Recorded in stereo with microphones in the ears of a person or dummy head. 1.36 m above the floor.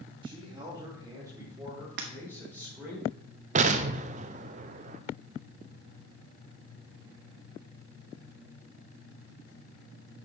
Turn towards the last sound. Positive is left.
turn(degrees=-35)  # may be behind; listen again after turning